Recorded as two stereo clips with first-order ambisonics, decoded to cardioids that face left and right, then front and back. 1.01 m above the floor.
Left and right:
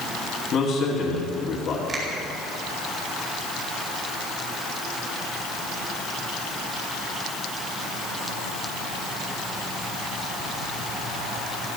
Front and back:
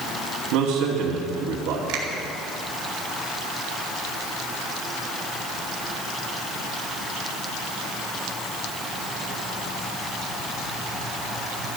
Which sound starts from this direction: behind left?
A man speaking, at 0.5 s.